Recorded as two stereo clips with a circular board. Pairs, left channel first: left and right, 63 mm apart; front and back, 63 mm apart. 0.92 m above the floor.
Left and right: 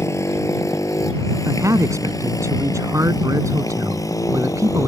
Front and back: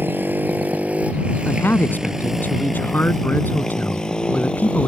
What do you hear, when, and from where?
0.0 s a motorcycle: 125° left; by 4.9 s 70° left
1.4 s a man speaking: 60° right